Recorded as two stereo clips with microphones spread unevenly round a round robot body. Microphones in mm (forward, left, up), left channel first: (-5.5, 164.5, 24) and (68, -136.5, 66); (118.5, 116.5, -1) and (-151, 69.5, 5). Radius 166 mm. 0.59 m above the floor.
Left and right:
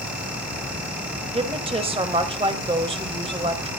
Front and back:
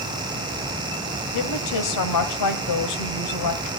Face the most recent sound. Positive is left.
turn(degrees=0)